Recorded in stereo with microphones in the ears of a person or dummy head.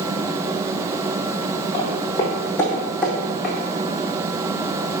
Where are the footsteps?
35° left (ahead or behind), 2.5 m; by 3.5 s 5° right (ahead or behind), 3.5 m.